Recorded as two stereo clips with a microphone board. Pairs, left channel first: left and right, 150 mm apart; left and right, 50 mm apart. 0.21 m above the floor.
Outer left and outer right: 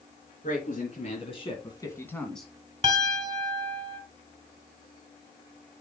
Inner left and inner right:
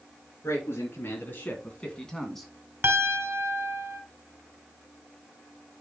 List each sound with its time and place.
0.4 s a man speaking: 55° left (ahead or behind), 3.5 m; by 2.5 s centre (ahead or behind), 2.5 m
2.8 s a piano: 40° right (ahead or behind), 1.6 m